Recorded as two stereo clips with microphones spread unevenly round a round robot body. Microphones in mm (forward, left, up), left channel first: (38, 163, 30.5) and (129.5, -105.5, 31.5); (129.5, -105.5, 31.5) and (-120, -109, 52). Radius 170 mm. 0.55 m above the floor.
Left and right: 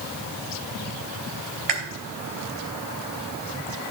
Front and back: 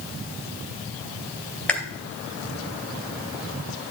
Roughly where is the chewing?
Right.